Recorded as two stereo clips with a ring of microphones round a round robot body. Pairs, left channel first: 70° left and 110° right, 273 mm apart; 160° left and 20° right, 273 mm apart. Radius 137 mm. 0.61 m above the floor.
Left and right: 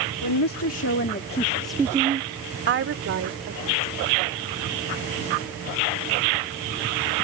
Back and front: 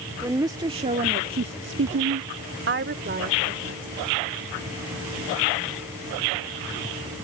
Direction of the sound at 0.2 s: 55° left.